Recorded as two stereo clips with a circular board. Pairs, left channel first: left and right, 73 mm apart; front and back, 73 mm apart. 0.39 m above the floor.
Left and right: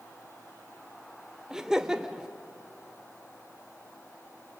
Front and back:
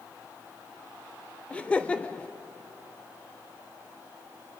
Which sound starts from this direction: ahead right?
Laughter, at 1.5 s.